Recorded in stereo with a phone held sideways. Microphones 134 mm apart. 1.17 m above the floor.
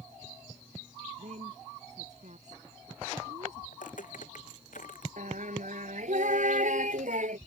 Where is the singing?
70° right (ahead or behind).